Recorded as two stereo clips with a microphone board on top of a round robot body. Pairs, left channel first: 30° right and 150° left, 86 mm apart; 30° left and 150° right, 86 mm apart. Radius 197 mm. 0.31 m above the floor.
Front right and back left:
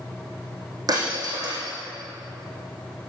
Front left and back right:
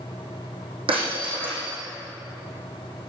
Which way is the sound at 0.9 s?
165° right.